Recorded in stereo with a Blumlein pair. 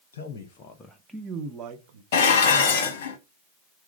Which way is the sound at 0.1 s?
60° left.